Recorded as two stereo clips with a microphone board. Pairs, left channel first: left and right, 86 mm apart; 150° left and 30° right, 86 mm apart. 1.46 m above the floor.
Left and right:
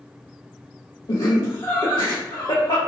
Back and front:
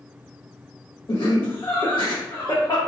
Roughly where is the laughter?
Behind left.